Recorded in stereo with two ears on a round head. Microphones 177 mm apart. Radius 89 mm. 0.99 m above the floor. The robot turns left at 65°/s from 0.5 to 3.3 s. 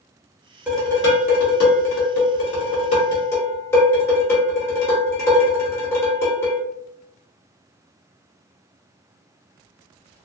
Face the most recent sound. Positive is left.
turn(degrees=15)